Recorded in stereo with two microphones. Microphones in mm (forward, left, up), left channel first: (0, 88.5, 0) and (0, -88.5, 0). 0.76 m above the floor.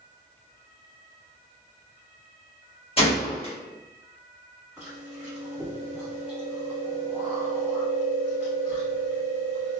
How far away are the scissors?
No scissors in this recording.